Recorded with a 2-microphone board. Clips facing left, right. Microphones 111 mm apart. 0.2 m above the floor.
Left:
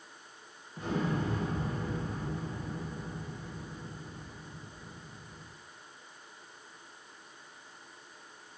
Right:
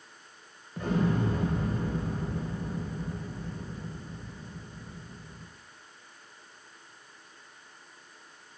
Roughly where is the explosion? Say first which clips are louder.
Right 4 dB; right.